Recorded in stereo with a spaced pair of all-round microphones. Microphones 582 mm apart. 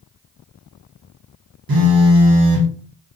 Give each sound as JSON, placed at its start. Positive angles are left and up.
{"t": 1.7, "sound": "a phone buzzing", "side_deg": -40, "distance_m": 0.6}